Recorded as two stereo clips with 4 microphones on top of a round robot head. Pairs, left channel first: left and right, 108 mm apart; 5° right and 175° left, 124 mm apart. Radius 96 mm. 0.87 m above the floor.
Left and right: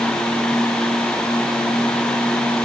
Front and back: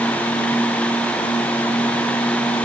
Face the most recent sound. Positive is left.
No sound to turn to.